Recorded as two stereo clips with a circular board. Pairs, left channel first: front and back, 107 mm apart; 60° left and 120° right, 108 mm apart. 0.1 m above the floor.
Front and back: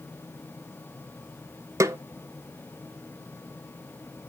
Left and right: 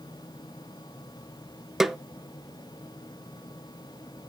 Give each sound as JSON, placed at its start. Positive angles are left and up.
{"t": 1.8, "sound": "a snare drum", "azimuth_deg": 155, "distance_m": 0.7}